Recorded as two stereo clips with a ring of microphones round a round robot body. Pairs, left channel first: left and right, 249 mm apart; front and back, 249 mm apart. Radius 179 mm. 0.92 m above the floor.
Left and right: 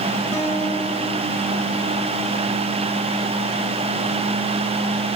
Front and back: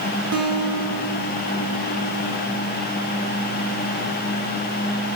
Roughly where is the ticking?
I don't hear ticking.